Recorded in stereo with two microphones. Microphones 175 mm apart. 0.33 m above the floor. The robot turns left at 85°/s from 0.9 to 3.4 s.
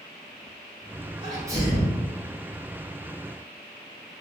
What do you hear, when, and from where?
1.2 s a sneeze: 25° right (ahead or behind), 1.5 m; by 2.0 s 5° right (ahead or behind), 1.5 m